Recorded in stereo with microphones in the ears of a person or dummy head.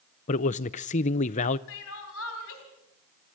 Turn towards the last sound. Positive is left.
turn(degrees=80)